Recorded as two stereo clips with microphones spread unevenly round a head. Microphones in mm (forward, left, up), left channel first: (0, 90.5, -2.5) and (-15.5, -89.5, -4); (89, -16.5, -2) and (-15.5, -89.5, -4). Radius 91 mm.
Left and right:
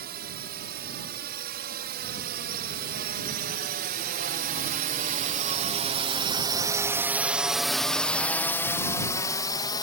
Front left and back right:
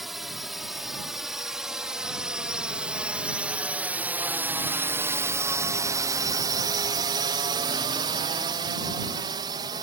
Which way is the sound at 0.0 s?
55° right.